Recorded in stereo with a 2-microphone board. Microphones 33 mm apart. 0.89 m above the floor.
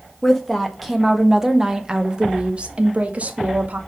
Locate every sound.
0.2 s a woman speaking: 10° left (ahead or behind), 1.5 m; by 3.8 s 55° right (ahead or behind), 1.5 m